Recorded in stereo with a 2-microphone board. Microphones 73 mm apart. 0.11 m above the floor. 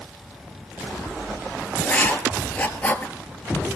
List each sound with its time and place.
1.8 s writing: 20° left (ahead or behind), 1.0 m